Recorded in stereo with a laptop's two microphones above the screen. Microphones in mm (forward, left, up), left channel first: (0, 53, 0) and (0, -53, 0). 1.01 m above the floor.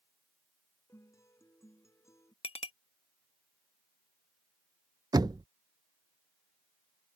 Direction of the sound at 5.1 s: 40° right (ahead or behind).